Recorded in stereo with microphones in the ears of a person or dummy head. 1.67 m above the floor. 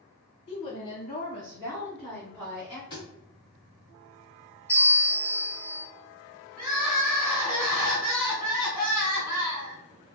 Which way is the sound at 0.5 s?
35° left (ahead or behind).